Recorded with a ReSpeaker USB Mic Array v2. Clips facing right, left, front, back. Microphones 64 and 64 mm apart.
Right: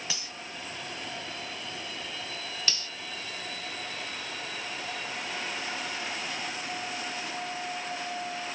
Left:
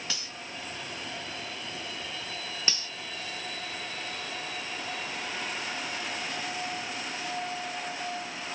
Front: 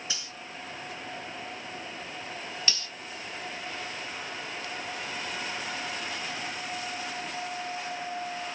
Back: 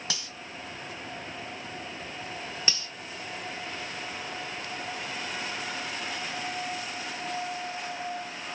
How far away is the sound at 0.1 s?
About 1.4 m.